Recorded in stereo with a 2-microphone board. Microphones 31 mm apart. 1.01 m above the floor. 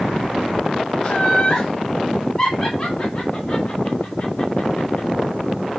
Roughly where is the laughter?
Centre.